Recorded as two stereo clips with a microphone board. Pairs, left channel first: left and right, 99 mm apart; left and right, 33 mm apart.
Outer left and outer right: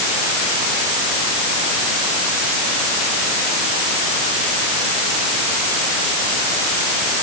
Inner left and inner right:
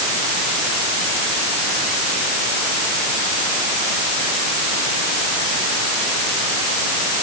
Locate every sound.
Only background noise.